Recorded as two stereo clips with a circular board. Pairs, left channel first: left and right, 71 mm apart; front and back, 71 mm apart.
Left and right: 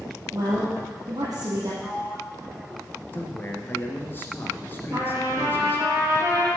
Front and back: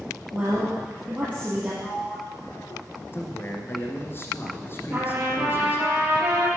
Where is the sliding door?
5° right, 0.9 m.